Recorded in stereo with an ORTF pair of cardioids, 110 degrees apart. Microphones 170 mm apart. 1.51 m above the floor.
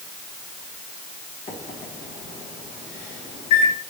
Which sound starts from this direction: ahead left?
A microwave, at 1.5 s.